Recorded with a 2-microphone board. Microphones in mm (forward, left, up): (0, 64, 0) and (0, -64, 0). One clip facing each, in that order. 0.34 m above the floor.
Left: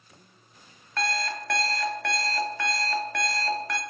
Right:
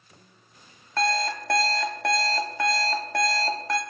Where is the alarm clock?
30° right (ahead or behind), 0.7 m.